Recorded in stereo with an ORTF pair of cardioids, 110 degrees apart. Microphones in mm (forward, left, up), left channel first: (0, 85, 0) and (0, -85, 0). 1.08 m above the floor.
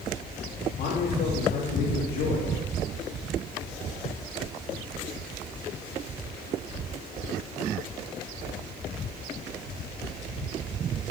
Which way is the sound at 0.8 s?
65° left.